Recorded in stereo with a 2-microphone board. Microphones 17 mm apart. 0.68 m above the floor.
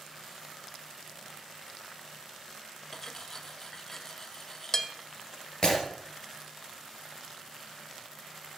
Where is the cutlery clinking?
30° left (ahead or behind), 0.6 m.